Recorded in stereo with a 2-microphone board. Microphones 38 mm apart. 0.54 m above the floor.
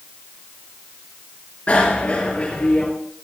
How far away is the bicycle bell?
About 5 m.